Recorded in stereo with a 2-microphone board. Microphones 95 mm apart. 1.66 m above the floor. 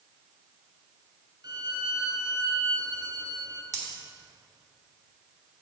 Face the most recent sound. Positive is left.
turn(degrees=-40)  # may be behind; listen again after turning